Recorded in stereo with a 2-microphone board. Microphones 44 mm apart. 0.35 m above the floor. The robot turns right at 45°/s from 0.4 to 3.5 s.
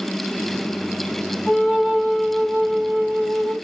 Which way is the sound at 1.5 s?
175° left.